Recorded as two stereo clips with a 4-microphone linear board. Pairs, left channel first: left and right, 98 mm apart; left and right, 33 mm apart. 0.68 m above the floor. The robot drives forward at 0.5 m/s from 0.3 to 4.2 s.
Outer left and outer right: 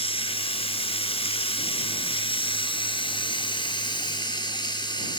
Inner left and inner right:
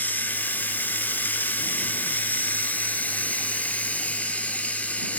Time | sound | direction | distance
0.0 | running water | 75° left (ahead or behind) | 2.0 m